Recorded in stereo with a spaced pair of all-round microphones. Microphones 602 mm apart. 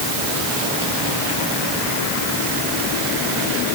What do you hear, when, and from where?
Only background noise.